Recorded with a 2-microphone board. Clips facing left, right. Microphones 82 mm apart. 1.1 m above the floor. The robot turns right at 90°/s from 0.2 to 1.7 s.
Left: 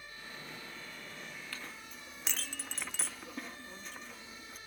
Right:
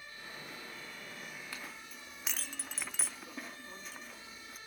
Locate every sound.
1.5 s a clink: 20° right (ahead or behind), 1.0 m; by 4.6 s 5° right (ahead or behind), 1.0 m